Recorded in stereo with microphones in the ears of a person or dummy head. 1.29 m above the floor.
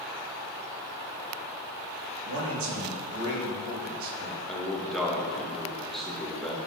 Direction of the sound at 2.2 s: 75° right (ahead or behind).